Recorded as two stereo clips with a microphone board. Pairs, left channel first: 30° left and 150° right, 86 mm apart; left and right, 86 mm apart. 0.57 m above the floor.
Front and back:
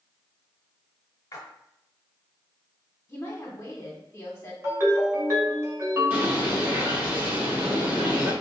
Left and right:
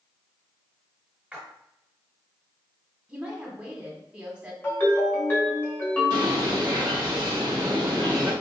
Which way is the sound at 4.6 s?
155° left.